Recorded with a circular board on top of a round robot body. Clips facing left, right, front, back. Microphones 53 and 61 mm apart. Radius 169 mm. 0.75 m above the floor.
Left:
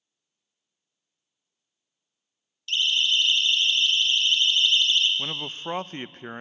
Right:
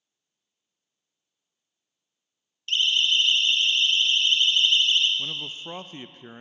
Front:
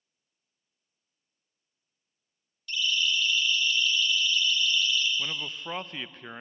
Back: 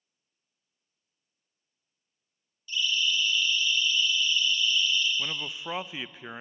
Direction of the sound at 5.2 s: 95° left.